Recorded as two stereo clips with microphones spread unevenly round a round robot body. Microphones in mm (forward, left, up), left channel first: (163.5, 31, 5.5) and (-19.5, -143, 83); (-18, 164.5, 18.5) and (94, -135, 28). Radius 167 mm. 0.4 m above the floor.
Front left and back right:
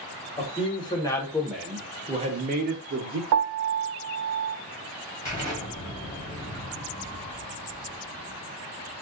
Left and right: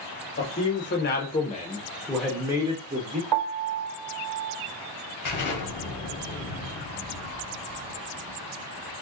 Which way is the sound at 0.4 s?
80° left.